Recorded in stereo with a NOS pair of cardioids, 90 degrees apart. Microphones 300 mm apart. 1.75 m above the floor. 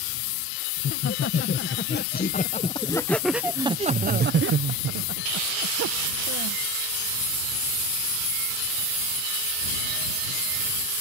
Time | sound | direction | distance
0.8 | laughter | 50° left | ?